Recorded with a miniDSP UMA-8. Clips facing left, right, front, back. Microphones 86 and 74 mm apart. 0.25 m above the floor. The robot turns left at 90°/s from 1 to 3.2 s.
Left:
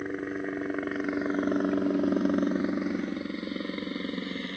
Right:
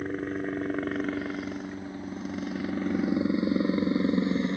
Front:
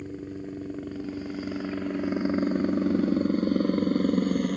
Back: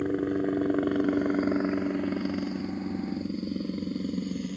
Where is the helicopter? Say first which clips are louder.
Right 1 dB, back 9 dB; 175° left; by 4.6 s 20° right.